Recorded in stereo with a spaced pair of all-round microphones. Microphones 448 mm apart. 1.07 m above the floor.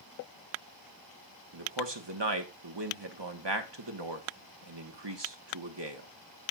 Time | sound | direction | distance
1.5 | a man speaking | 65° right (ahead or behind) | 1.3 m